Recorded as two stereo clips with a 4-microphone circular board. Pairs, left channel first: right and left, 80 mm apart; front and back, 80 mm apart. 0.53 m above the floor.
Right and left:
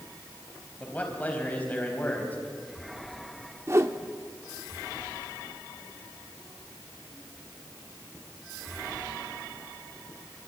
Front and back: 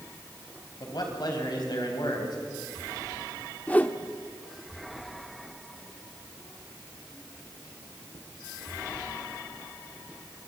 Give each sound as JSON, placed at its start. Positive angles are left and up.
{"t": 0.8, "sound": "a man speaking", "azimuth_deg": -20, "distance_m": 4.0}
{"t": 3.7, "sound": "a whoosh", "azimuth_deg": 60, "distance_m": 0.9}